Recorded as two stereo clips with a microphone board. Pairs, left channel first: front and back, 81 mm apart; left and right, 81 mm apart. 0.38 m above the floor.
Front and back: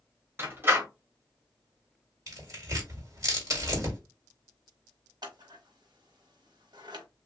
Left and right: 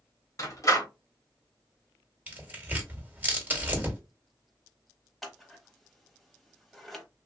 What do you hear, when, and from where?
0.4 s a door slam: 125° left, 1.3 m
2.3 s tearing paper: 150° right, 1.6 m
5.2 s scissors: straight behind, 1.2 m